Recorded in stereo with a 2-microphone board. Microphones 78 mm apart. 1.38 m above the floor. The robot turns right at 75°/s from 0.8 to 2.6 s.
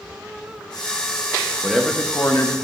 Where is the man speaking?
10° right, 1.2 m; by 2.5 s 60° left, 1.2 m.